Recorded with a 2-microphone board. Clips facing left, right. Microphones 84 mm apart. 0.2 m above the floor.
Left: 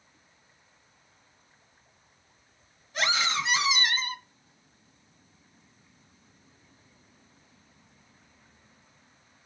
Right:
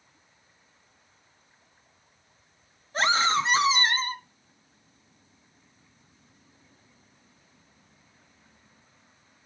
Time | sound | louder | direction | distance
2.9 | a scream | right 5 dB | 40° right (ahead or behind) | 1.5 m